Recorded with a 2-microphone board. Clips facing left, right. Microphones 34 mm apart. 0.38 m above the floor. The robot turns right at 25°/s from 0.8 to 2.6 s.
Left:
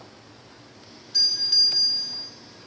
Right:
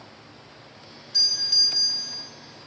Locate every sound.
1.1 s a doorbell: 5° left (ahead or behind), 3.5 m; by 2.3 s 25° left (ahead or behind), 3.5 m